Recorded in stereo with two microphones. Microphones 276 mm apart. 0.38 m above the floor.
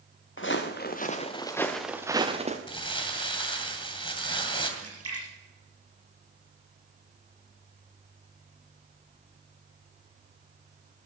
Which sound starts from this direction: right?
A splash, at 4.8 s.